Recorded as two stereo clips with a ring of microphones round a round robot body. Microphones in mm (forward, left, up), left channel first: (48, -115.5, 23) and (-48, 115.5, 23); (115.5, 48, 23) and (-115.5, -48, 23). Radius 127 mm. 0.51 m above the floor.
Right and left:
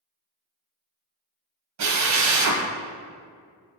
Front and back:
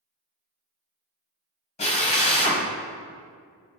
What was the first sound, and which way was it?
A drill, 90° left.